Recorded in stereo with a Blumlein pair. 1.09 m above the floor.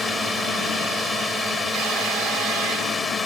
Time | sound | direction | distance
0.0 | a drone | 5° left | ?